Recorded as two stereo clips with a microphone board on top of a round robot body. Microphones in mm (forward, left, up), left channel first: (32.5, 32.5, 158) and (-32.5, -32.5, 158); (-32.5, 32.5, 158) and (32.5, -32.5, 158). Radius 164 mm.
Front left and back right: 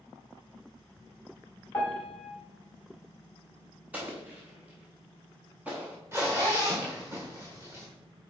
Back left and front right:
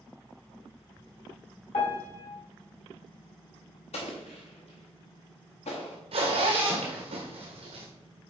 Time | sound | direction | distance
1.7 | a piano | 130° left | 2 m
3.9 | an explosion | 150° left | 0.6 m
6.1 | a zipper | 70° right | 1.2 m